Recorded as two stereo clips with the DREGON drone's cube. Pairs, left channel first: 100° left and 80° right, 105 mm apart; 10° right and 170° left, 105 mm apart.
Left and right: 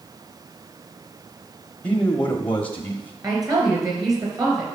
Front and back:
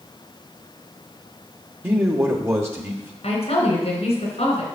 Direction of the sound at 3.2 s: 25° right.